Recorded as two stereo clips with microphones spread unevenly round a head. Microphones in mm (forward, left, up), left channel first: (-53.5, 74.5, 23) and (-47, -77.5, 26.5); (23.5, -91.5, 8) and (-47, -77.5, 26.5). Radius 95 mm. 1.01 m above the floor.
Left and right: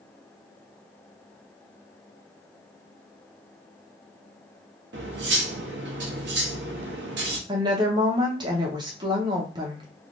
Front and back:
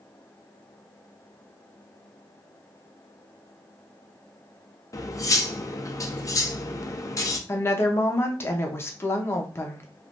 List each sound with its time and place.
4.9 s cutlery clinking: 60° right, 0.6 m
7.5 s a woman speaking: 30° right, 0.8 m